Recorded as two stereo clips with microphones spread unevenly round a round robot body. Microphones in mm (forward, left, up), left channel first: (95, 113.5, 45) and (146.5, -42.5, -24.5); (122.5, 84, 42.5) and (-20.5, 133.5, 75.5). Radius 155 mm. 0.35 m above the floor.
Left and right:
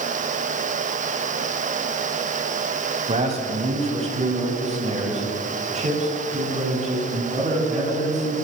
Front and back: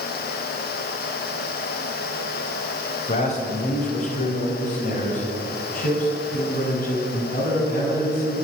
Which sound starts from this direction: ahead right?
A man speaking, at 3.1 s.